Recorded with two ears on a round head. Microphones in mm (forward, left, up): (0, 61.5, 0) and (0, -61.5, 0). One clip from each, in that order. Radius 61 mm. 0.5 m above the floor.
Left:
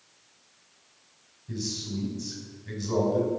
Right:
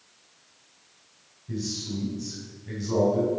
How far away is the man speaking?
About 3.5 m.